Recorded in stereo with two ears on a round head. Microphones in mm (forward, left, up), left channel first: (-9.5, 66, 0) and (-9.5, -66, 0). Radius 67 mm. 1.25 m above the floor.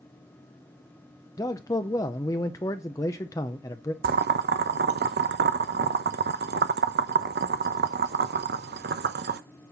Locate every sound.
1.4 s a man speaking: 20° left (ahead or behind), 0.5 m
4.0 s boiling: 70° right (ahead or behind), 0.7 m